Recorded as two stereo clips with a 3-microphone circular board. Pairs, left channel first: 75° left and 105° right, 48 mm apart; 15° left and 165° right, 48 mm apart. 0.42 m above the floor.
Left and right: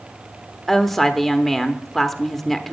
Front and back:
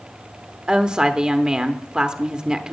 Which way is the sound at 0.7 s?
155° left.